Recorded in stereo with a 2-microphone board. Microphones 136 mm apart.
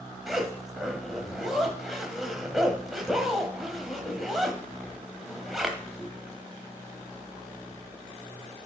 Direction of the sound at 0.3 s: Centre (ahead or behind).